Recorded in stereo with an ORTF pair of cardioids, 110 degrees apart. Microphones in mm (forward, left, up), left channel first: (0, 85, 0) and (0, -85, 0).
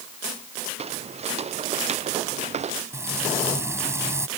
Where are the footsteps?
40° right.